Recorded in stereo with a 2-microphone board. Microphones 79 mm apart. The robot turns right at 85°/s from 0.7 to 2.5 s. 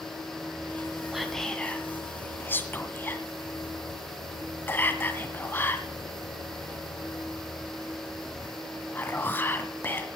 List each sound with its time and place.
1.1 s whispering: 5° right (ahead or behind), 1.7 m; by 10.1 s 25° left (ahead or behind), 1.7 m